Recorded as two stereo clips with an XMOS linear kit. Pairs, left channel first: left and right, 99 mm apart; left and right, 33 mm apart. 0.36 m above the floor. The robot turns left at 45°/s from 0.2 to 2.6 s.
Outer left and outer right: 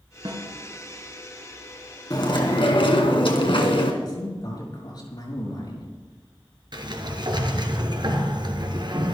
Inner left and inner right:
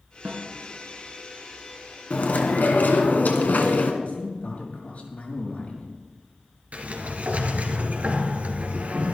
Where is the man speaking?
50° left (ahead or behind), 5.5 m.